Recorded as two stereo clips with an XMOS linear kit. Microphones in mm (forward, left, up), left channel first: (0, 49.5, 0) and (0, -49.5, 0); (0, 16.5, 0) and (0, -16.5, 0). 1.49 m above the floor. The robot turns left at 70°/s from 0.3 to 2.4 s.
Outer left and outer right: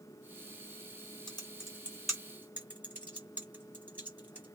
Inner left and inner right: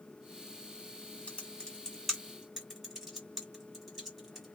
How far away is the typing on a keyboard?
About 1.5 m.